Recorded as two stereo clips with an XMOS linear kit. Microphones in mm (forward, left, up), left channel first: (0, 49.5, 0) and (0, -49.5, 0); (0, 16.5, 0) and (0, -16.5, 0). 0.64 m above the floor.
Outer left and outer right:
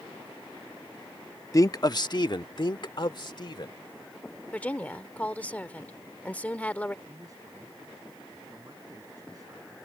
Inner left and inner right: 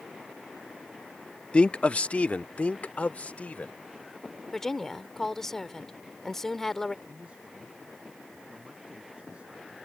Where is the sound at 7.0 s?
35° right (ahead or behind).